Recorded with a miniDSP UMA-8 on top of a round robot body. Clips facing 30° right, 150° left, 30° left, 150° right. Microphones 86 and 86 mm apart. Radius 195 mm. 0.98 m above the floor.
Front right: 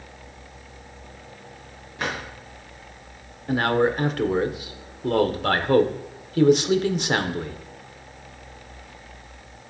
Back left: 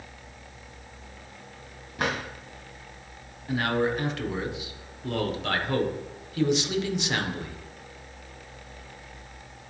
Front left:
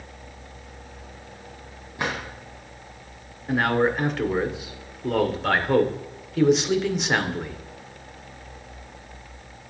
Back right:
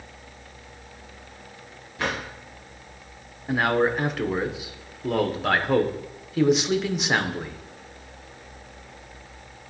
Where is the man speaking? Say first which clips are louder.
Front right 5 dB, even; 60° right, 1.0 m.